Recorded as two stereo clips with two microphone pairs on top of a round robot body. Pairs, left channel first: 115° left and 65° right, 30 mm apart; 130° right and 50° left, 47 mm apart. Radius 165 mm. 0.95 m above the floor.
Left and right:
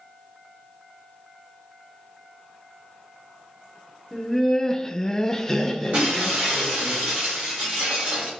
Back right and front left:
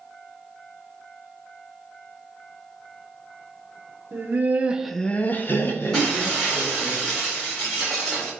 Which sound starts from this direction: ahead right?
Breaking glass, at 5.9 s.